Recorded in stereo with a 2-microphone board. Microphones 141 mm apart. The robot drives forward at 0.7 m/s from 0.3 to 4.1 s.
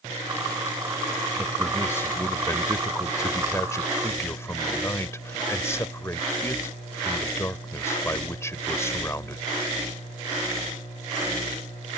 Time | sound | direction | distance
1.4 | a man speaking | 15° left (ahead or behind) | ?